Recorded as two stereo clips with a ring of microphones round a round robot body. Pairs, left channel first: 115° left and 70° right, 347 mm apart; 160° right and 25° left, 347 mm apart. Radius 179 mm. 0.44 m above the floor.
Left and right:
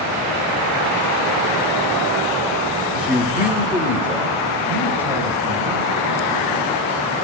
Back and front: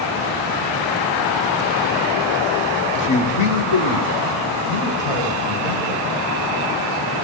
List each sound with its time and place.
3.0 s a man speaking: 150° right, 1.0 m; by 7.2 s 155° right, 6.5 m